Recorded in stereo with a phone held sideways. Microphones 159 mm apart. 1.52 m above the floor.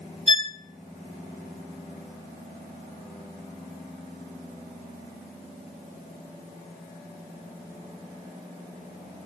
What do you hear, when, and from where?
0.3 s a violin: 35° left (ahead or behind), 1.0 m